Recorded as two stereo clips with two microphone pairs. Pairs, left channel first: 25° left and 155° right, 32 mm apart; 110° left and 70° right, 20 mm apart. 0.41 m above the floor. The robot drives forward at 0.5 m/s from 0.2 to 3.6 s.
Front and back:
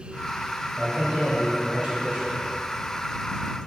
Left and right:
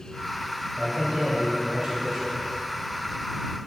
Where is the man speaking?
105° right, 1.9 m; by 2.4 s 130° right, 2.5 m.